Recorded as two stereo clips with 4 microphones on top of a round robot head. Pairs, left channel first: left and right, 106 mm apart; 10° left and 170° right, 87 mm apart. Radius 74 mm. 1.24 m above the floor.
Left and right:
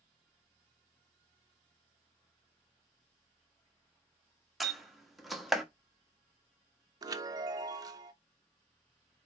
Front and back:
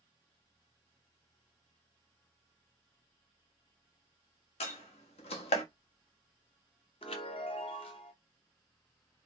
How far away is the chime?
About 0.8 m.